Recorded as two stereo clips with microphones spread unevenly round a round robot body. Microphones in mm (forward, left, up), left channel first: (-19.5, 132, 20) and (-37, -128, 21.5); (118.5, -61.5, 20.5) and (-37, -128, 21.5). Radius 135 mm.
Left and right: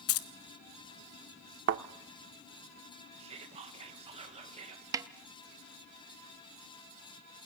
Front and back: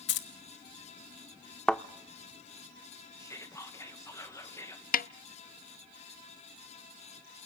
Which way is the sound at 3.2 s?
40° right.